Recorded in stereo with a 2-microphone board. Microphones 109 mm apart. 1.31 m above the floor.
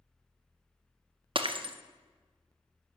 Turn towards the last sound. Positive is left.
turn(degrees=-55)  # may be behind; listen again after turning